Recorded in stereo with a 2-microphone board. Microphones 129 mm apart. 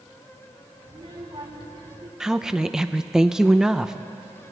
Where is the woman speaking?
5° right (ahead or behind), 0.7 m.